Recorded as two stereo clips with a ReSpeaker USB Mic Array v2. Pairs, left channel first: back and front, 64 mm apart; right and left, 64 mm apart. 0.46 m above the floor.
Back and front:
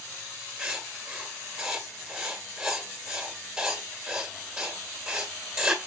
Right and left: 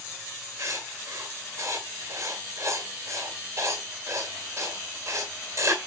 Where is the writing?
75° left, 2 m.